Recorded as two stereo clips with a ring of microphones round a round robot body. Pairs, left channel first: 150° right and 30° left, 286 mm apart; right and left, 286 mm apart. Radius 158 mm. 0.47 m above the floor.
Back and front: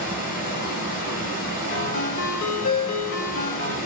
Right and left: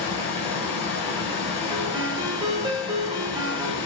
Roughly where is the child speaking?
No child speaking in this recording.